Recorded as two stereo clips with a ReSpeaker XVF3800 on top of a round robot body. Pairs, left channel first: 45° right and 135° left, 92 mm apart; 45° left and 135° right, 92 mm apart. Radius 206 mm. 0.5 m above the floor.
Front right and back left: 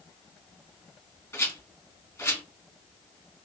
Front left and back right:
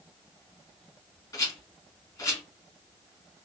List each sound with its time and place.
1.3 s a rattle: 5° left, 1.7 m